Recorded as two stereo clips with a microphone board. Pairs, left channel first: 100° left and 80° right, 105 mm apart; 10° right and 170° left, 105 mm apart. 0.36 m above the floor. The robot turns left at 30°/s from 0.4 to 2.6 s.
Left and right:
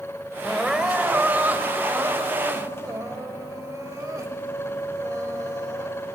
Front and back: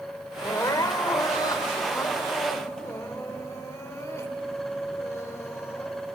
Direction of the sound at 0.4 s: 10° left.